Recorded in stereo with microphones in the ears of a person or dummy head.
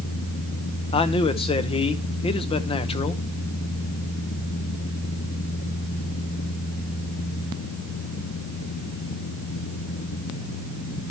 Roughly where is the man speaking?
Left.